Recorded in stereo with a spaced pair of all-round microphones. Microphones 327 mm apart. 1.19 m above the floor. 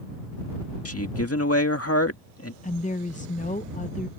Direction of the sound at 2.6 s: 25° left (ahead or behind).